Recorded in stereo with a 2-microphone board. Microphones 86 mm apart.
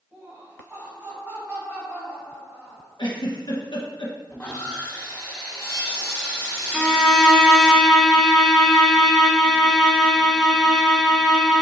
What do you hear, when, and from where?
0.1 s laughter: 20° right (ahead or behind), 1.6 m
3.0 s a giggle: 60° left (ahead or behind), 1.2 m
4.3 s sawing: 15° left (ahead or behind), 1.6 m
6.7 s a violin: centre (ahead or behind), 0.5 m